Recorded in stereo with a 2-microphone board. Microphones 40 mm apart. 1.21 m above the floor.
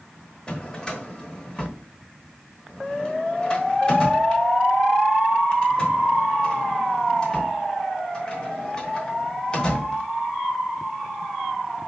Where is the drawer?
20° left (ahead or behind), 0.9 m.